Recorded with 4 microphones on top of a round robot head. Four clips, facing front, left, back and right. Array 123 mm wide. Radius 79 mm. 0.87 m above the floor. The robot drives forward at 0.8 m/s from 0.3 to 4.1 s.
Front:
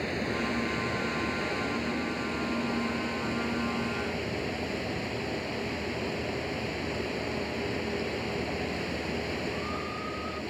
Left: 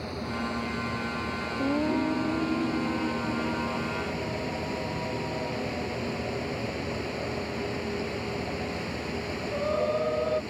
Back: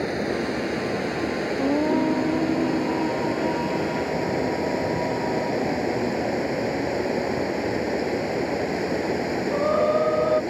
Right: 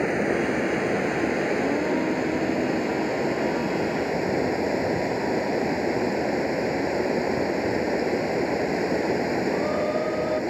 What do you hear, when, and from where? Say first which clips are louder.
0.0 s running water: right 10 dB, back 6 dB; 115° right; by 10.5 s 125° right
1.6 s singing: right 3 dB, back 11 dB; straight behind